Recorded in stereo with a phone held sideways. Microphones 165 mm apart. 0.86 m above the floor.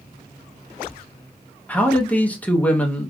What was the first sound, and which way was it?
A man speaking, 10° left (ahead or behind).